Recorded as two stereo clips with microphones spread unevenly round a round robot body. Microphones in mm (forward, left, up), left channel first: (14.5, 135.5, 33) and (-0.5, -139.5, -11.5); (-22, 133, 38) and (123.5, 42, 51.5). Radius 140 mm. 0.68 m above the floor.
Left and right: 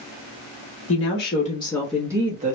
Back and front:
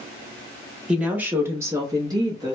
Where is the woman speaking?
55° left, 1.0 m; by 2.5 s 90° right, 0.9 m.